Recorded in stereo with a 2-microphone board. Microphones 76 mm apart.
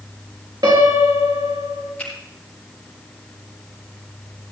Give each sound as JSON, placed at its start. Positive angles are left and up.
{"t": 0.6, "sound": "a piano", "side_deg": -70, "distance_m": 4.0}
{"t": 2.0, "sound": "a finger snap", "side_deg": 15, "distance_m": 8.0}